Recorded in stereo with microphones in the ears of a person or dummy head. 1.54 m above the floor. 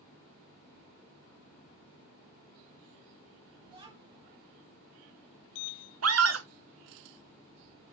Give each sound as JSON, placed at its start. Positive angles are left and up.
{"t": 3.7, "sound": "a child speaking", "side_deg": -25, "distance_m": 1.4}
{"t": 6.0, "sound": "a scream", "side_deg": -85, "distance_m": 1.0}